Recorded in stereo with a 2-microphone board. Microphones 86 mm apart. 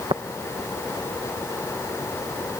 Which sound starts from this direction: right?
Tapping, at 0.1 s.